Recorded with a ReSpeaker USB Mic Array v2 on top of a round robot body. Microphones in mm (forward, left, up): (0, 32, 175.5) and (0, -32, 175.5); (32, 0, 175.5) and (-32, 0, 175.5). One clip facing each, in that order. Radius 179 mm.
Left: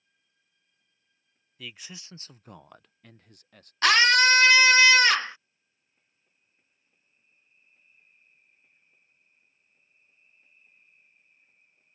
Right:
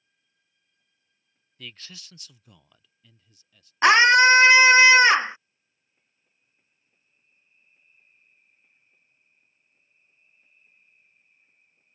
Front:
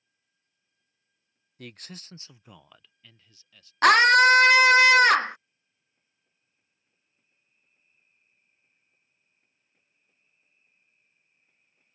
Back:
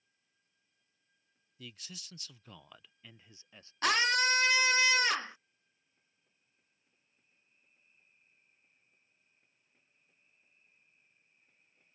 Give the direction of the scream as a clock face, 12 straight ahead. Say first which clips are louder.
Right 5 dB, front 13 dB; 1 o'clock.